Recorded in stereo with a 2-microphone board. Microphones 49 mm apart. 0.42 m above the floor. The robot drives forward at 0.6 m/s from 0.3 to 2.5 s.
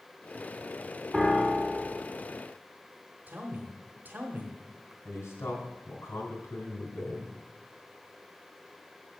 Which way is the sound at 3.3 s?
40° right (ahead or behind).